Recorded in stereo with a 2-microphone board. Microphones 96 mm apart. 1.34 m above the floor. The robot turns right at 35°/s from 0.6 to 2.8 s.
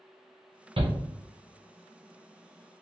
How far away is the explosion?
No explosion in this recording.